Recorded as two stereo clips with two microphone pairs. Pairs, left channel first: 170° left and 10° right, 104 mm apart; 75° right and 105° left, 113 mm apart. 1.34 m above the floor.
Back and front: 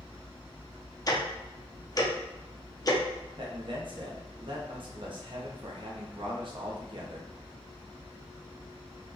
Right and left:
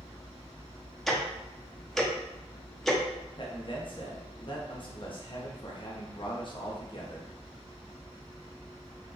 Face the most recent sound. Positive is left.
turn(degrees=-40)